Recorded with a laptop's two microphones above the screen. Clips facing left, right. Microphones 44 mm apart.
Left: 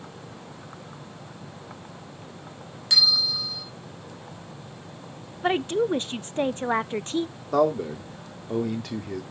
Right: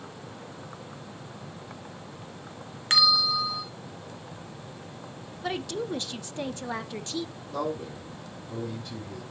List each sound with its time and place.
2.9 s a bell: 45° right (ahead or behind), 1.9 m
5.4 s a woman speaking: 35° left (ahead or behind), 0.6 m
7.5 s a man speaking: 80° left, 2.5 m